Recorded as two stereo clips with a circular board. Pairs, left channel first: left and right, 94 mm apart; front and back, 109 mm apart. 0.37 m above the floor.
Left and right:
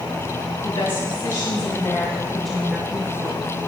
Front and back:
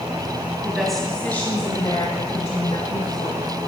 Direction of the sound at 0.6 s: 95° left.